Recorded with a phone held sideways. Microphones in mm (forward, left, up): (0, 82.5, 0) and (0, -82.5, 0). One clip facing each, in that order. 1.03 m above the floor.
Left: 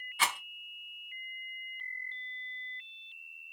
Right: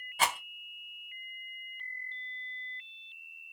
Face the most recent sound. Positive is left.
turn(degrees=-40)  # may be behind; listen again after turning